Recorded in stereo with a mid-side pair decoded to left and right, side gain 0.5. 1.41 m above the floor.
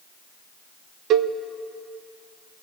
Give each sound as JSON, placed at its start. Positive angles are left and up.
{"t": 1.1, "sound": "a cowbell", "azimuth_deg": -65, "distance_m": 0.9}